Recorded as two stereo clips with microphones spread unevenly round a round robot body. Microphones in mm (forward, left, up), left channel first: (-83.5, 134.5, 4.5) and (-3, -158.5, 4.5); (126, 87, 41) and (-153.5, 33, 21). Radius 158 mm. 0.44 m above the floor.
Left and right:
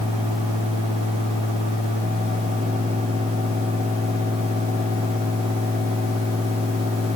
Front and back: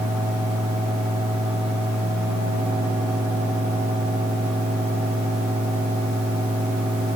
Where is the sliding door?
No sliding door in this recording.